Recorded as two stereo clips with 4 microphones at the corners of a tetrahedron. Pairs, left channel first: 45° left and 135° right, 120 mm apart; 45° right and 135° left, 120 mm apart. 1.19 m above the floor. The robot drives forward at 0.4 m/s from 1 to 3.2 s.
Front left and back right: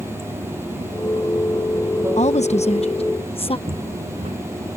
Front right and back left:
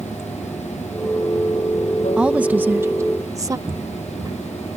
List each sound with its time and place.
0.0 s running water: 65° right
2.2 s a woman speaking: 55° left; by 3.6 s 75° left
3.7 s footsteps: 165° right